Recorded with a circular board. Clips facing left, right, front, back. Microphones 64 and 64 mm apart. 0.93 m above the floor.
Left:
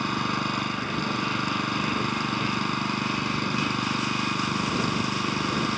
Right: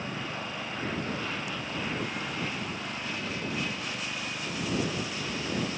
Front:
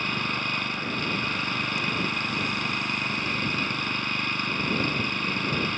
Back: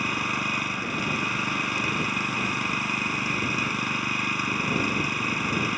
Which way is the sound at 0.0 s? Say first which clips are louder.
Left 9 dB, back 1 dB; 95° left.